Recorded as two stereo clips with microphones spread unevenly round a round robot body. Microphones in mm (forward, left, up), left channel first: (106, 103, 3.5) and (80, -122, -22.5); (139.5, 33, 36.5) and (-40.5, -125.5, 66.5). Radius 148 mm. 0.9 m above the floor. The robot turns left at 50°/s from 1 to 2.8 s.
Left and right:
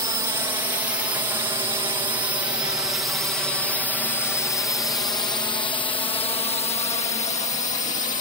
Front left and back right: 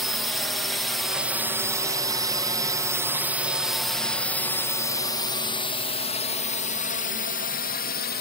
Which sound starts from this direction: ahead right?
A drone, at 0.0 s.